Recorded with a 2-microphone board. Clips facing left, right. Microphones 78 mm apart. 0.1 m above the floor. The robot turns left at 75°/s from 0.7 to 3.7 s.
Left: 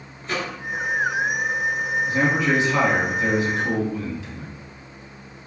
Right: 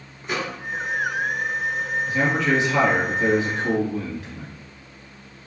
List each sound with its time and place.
0.2 s a microwave: 15° right (ahead or behind), 1.0 m
2.1 s a man speaking: 45° left, 1.9 m; by 4.5 s 80° right, 1.9 m